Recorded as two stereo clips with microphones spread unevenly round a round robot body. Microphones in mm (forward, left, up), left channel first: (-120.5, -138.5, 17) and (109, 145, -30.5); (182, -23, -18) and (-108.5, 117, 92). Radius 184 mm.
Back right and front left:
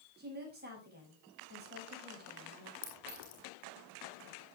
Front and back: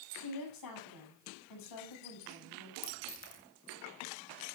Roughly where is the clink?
Right.